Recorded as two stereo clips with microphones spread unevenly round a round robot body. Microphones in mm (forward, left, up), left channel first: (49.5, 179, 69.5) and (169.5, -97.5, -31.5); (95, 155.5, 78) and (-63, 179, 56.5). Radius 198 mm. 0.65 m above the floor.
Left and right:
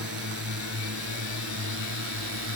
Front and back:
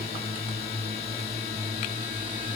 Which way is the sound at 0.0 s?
125° right.